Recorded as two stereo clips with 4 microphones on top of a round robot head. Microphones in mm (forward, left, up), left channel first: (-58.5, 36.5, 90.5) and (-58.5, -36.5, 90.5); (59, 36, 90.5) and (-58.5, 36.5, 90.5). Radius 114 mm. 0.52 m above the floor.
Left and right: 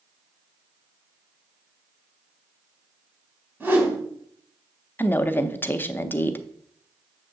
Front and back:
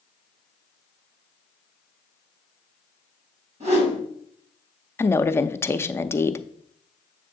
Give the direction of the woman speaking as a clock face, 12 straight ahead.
10 o'clock.